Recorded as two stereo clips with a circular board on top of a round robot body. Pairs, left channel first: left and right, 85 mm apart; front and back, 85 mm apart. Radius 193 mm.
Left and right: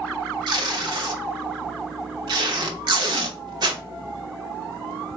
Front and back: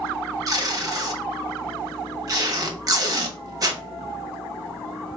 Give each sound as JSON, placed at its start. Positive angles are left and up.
{"t": 0.5, "sound": "tape being pulled", "azimuth_deg": -130, "distance_m": 0.9}